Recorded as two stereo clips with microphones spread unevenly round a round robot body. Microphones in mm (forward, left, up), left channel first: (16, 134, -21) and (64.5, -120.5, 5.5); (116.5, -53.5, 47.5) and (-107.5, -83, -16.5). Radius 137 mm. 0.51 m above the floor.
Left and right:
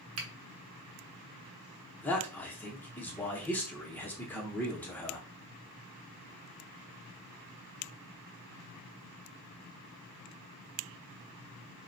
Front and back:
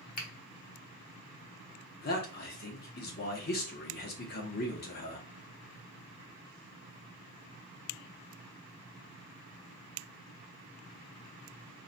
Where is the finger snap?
50° right, 1.0 m.